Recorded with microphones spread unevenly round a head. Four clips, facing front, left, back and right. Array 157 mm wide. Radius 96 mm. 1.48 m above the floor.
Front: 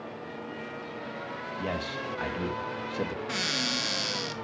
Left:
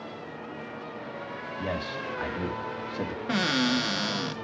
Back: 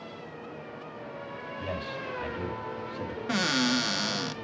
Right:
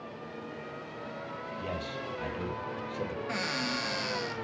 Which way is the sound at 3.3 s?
110° left.